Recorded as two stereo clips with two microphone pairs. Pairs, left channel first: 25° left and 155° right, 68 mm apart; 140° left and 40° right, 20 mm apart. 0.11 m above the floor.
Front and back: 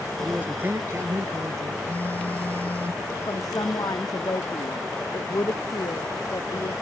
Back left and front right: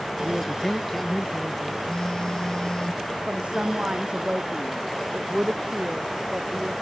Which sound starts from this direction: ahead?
A woman speaking, at 3.3 s.